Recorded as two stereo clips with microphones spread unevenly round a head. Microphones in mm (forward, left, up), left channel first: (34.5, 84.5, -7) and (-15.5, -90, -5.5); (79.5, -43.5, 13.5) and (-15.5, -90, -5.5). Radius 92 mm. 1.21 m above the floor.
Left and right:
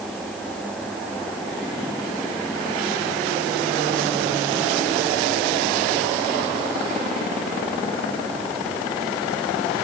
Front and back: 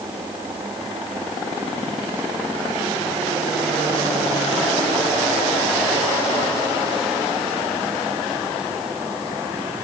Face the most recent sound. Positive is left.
No sound to turn to.